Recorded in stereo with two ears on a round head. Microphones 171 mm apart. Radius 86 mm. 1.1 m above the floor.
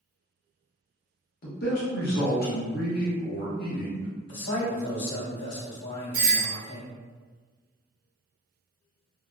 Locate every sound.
1.4 s a man speaking: 55° left (ahead or behind), 0.9 m
4.3 s a man speaking: 65° left (ahead or behind), 1.2 m
6.1 s a doorbell: 50° right (ahead or behind), 0.8 m